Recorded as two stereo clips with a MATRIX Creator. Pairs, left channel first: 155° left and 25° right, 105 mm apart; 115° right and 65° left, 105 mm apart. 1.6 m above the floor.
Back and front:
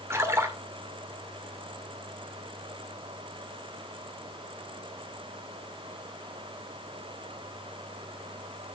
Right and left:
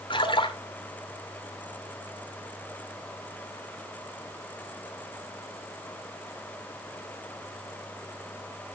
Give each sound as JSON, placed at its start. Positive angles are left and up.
{"t": 0.1, "sound": "a splash", "azimuth_deg": -85, "distance_m": 2.0}